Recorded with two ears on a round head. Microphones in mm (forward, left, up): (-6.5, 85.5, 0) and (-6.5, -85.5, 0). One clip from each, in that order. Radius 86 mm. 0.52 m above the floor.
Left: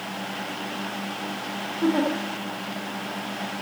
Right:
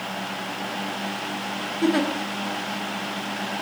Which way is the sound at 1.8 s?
50° right (ahead or behind).